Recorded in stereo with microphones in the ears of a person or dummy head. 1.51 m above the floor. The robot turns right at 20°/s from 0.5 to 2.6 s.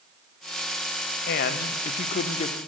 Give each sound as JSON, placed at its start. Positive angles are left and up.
{"t": 1.3, "sound": "a man speaking", "side_deg": 55, "distance_m": 0.7}